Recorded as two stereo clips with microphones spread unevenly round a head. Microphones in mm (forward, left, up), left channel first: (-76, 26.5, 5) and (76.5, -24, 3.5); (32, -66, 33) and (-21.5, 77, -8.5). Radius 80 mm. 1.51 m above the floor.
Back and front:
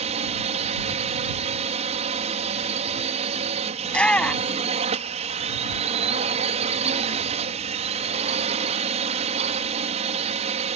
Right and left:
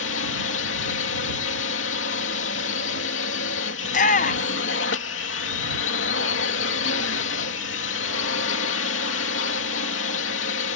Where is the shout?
115° right.